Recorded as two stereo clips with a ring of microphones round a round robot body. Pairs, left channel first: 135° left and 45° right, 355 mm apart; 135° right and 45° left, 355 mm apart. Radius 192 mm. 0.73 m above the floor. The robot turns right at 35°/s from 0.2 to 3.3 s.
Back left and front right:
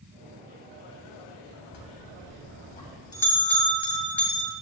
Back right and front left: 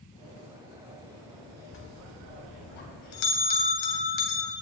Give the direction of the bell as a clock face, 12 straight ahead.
6 o'clock.